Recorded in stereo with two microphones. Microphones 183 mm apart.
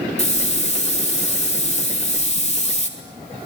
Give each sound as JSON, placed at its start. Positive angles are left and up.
{"t": 0.2, "sound": "a hiss", "side_deg": 35, "distance_m": 3.5}